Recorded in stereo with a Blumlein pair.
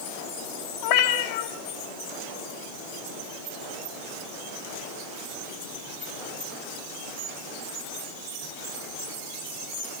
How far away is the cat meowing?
About 3.5 m.